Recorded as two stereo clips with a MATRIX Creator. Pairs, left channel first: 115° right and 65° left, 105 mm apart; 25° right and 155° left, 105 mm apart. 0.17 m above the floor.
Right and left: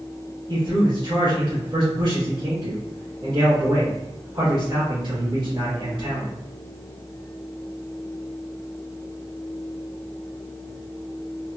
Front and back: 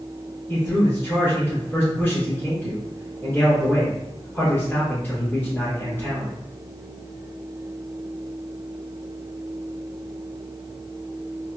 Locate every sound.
0.5 s a man speaking: 45° left, 2.0 m